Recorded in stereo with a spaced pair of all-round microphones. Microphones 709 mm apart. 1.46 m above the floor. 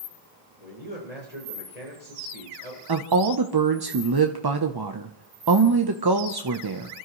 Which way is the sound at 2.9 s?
35° right (ahead or behind).